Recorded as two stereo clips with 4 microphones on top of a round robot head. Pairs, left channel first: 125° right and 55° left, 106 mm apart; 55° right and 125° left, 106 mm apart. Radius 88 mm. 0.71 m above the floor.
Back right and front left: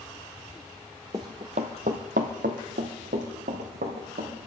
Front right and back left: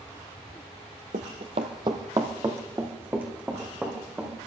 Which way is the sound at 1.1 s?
115° left.